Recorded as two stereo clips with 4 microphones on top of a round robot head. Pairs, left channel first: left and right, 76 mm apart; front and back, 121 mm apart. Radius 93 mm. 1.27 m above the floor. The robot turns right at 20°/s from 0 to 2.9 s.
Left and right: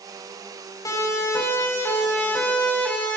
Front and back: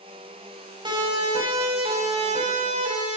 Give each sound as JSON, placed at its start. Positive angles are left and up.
{"t": 0.8, "sound": "a siren", "azimuth_deg": 130, "distance_m": 8.5}